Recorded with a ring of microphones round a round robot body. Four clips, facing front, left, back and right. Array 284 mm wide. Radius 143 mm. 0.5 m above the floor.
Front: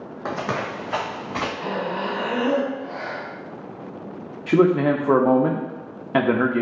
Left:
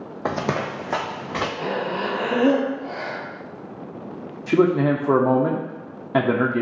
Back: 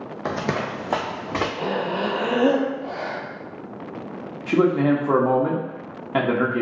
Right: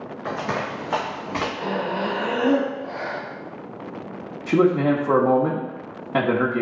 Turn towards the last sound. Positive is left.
turn(degrees=25)